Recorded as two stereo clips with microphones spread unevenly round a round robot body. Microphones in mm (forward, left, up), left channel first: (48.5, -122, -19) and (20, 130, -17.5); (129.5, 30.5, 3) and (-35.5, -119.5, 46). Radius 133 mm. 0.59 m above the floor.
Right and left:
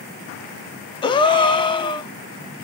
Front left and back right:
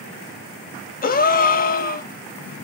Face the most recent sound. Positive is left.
turn(degrees=-10)